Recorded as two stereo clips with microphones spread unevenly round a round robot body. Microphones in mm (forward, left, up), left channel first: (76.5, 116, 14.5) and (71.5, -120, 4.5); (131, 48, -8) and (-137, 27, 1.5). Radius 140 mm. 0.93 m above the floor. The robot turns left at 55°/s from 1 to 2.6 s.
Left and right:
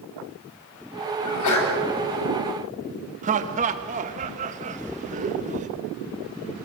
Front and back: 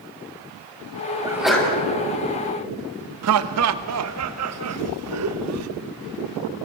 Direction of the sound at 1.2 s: 110° left.